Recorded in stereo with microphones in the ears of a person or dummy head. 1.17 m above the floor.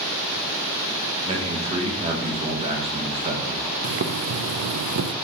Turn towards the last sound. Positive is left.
turn(degrees=-70)  # may be behind; listen again after turning